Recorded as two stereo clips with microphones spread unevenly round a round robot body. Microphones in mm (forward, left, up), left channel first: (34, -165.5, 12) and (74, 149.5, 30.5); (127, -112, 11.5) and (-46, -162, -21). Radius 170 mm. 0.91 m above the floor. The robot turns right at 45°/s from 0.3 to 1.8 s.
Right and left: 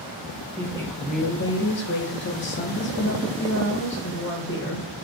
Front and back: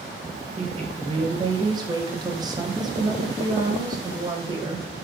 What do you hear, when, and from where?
0.6 s a woman speaking: straight behind, 0.8 m; by 4.9 s 125° right, 0.8 m